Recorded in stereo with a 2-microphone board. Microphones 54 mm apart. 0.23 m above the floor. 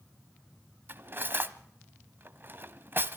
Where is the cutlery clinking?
40° right (ahead or behind), 0.8 m.